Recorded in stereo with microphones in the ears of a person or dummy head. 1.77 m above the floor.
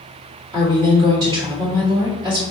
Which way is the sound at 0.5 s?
25° right (ahead or behind).